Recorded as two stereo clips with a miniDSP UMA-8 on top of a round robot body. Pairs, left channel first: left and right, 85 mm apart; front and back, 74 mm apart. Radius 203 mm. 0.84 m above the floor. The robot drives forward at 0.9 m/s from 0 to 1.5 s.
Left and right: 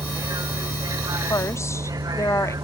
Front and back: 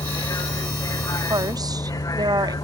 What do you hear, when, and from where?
0.0 s a vehicle: 40° right
1.3 s a woman speaking: 145° left